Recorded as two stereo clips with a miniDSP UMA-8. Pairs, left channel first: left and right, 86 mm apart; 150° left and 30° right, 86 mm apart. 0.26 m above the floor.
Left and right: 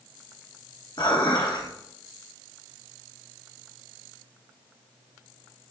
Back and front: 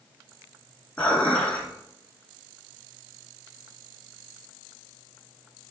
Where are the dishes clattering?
80° left, 1.8 m.